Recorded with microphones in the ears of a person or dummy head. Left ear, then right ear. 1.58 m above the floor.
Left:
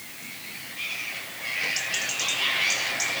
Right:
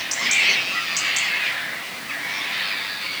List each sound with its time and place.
Only background noise.